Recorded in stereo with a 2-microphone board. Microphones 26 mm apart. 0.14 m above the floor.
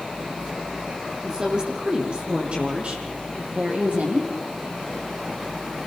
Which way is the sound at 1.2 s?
25° right (ahead or behind).